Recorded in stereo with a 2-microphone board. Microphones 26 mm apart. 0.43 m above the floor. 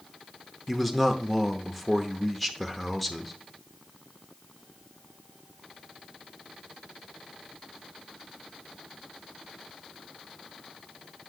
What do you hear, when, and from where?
0.7 s a man speaking: centre (ahead or behind), 0.8 m